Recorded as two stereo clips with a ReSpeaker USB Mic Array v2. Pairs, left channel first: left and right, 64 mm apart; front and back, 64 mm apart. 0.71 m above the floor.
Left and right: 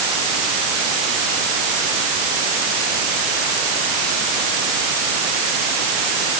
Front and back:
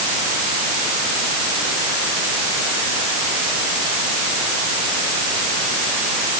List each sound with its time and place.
Only background noise.